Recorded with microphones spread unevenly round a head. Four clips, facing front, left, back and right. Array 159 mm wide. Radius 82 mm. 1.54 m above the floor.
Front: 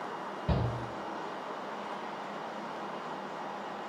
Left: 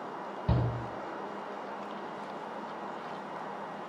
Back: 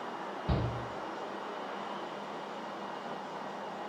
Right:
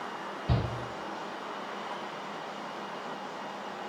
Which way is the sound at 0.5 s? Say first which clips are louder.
Even, front 2 dB; 40° left.